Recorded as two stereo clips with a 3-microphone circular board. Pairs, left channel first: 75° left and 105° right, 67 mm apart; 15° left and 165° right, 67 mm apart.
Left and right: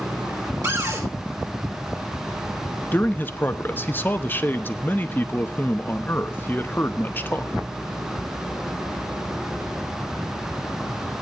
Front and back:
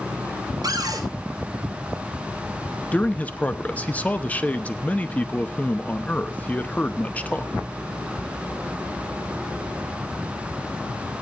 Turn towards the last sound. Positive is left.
turn(degrees=60)